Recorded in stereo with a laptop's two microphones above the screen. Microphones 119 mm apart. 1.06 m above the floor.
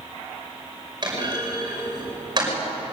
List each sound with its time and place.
1.0 s a clunk: 35° right (ahead or behind), 5.5 m